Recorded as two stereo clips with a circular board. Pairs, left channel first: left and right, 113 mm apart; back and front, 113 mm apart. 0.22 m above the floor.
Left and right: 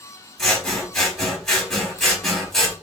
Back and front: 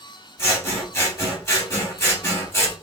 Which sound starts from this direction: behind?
Scissors, at 0.4 s.